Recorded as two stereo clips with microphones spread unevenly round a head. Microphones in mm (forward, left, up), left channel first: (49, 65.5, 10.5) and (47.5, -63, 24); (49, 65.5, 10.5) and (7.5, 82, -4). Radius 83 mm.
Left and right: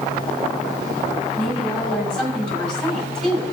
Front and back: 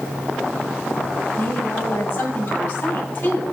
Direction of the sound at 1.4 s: 5° left.